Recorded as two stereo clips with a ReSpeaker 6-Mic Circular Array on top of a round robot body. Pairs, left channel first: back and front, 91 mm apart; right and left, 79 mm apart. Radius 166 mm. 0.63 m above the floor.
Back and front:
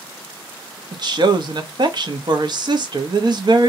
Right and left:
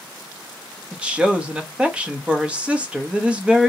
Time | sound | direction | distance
0.9 | a woman speaking | 15° left | 1.1 m